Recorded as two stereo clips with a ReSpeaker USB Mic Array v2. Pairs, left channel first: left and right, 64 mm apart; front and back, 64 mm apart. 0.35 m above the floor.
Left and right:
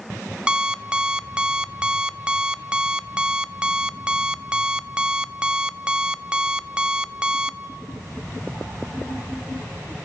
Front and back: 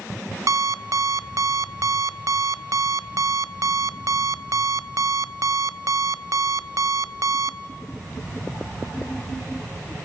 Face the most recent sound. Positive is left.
turn(degrees=-165)